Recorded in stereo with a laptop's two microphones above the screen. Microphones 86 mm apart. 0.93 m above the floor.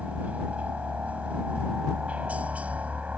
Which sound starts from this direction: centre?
A helicopter, at 0.0 s.